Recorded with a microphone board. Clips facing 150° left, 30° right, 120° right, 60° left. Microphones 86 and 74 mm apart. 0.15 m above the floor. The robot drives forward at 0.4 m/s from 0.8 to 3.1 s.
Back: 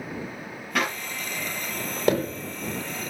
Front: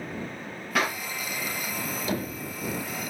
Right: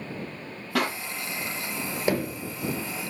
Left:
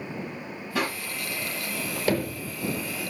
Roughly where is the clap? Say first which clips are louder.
Even, right 2 dB; behind right.